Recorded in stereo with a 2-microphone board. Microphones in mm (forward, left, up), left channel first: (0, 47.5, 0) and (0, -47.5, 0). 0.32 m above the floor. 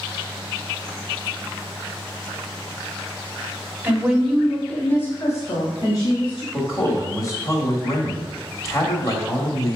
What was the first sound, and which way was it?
A woman speaking, 20° right (ahead or behind).